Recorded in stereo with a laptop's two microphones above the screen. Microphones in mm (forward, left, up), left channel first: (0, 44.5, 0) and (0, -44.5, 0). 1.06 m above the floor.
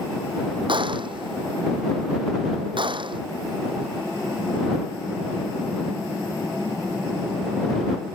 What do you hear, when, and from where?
0.7 s a gunshot: 70° right (ahead or behind)